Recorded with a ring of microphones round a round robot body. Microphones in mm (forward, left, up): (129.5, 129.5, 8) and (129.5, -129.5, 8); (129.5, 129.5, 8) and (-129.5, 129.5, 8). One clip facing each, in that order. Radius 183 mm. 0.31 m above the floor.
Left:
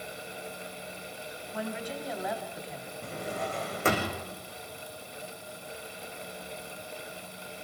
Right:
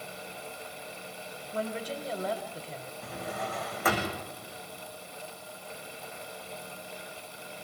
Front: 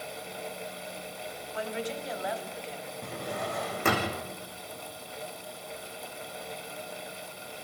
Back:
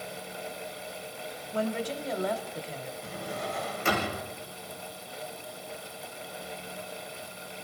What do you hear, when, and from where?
1.5 s a woman speaking: 140° right, 1.4 m
3.0 s a drawer: 30° left, 6.5 m